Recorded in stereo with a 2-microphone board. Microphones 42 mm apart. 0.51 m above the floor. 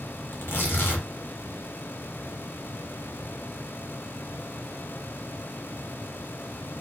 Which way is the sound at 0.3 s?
60° left (ahead or behind).